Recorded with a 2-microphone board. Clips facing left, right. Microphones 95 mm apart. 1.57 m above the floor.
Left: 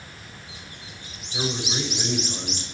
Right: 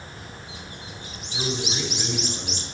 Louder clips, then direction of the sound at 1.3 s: Left 1 dB; 10° left (ahead or behind).